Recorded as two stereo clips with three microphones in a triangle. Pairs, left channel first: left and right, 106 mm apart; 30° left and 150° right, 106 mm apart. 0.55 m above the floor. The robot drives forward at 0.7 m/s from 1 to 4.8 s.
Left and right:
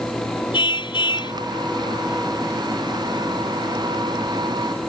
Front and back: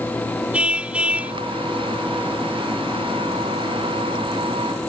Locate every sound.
0.5 s a car horn: 130° left; by 1.3 s 135° left